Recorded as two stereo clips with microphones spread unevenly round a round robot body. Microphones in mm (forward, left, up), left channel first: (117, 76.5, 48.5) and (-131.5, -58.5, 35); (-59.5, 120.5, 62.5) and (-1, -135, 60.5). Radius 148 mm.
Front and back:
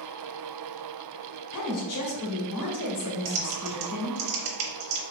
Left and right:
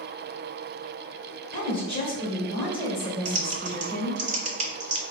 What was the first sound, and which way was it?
A woman speaking, 35° left.